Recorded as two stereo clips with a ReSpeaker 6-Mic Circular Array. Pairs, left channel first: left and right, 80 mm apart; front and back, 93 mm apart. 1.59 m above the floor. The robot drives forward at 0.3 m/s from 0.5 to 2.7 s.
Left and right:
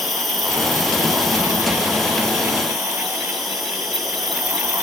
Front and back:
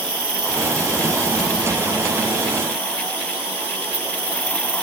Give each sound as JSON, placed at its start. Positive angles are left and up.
{"t": 0.0, "sound": "an insect", "azimuth_deg": 180, "distance_m": 4.0}